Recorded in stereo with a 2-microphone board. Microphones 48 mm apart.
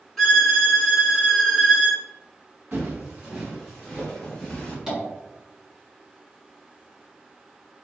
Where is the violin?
10° left (ahead or behind), 1.4 m.